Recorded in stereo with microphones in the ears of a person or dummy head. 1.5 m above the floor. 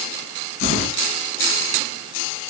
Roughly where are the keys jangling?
Left.